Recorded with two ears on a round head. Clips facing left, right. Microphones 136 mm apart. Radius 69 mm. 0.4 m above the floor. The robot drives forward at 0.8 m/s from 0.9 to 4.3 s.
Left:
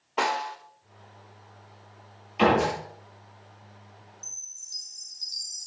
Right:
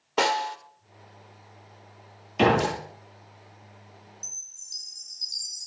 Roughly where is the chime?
Right.